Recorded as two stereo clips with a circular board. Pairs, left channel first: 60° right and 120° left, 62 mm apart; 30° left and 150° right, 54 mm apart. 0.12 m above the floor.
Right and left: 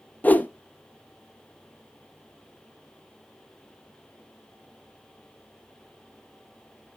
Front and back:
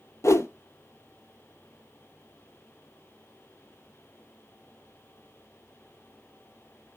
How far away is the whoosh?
About 0.5 m.